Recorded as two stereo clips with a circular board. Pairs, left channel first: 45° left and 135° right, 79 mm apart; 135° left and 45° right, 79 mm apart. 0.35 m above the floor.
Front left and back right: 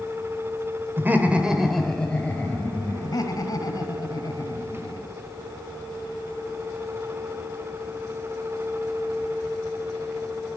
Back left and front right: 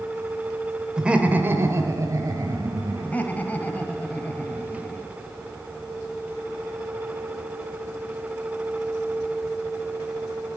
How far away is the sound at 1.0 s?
About 1.4 m.